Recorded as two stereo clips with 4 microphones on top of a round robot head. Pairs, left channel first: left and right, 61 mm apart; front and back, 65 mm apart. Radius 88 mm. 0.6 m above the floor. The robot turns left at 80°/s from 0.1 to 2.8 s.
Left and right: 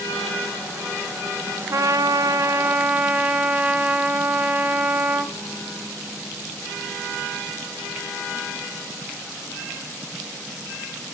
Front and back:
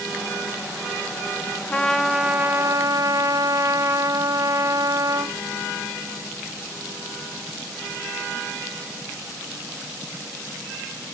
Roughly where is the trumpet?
Ahead right.